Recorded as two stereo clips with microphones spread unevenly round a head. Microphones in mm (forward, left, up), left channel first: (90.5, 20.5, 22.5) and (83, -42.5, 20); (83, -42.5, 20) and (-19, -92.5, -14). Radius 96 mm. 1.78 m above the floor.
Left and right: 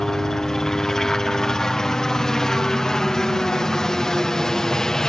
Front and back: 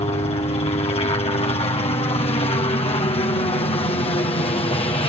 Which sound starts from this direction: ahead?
A helicopter, at 0.0 s.